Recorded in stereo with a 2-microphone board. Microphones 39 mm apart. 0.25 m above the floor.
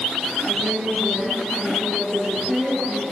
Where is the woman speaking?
5° right (ahead or behind), 5.5 m.